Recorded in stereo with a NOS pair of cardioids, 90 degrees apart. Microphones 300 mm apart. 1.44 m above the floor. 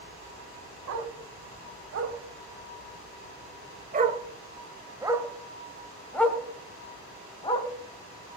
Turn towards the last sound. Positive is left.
turn(degrees=20)